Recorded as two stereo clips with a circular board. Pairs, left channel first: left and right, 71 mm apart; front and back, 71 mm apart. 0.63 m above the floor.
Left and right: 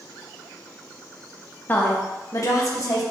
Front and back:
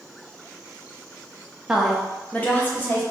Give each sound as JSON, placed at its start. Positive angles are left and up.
{"t": 1.7, "sound": "a woman speaking", "azimuth_deg": 105, "distance_m": 0.5}